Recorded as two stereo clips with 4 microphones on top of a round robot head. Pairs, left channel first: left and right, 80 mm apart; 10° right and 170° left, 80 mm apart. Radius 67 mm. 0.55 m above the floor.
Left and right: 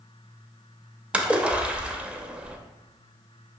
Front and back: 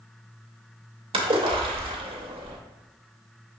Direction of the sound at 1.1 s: 170° right.